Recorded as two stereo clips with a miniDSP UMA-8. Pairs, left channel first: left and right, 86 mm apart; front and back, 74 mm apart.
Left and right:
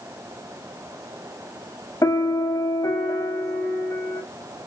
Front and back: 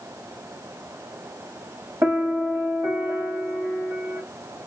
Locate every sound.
2.0 s a piano: 130° left, 1.4 m